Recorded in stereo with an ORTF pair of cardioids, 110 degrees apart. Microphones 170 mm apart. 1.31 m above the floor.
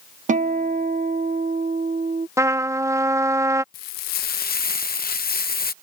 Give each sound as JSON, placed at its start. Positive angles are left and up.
{"t": 0.3, "sound": "a guitar", "azimuth_deg": -50}
{"t": 2.4, "sound": "a trumpet", "azimuth_deg": -20}
{"t": 3.7, "sound": "frying", "azimuth_deg": 70}